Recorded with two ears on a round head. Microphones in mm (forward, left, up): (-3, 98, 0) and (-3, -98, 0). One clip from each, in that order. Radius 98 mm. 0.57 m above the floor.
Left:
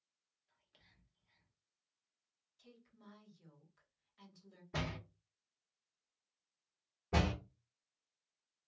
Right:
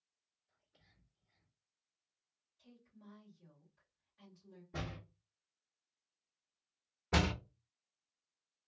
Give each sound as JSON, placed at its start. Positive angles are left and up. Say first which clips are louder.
{"t": 0.5, "sound": "whispering", "louder": "left 3 dB", "side_deg": 40, "distance_m": 1.4}
{"t": 2.6, "sound": "a woman speaking", "louder": "left 1 dB", "side_deg": 45, "distance_m": 1.6}
{"t": 4.7, "sound": "a door slam", "louder": "left 4 dB", "side_deg": 35, "distance_m": 0.6}
{"t": 7.1, "sound": "a door slam", "louder": "right 2 dB", "side_deg": -45, "distance_m": 0.5}